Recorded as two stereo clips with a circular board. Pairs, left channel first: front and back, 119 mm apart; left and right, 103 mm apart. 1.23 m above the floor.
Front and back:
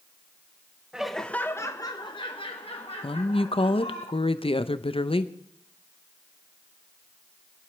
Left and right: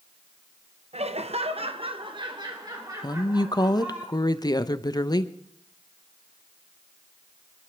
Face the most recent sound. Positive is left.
turn(degrees=40)